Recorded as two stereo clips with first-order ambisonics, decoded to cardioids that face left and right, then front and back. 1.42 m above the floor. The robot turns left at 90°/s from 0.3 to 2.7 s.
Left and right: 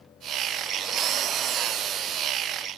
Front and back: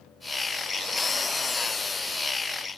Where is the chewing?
No chewing in this recording.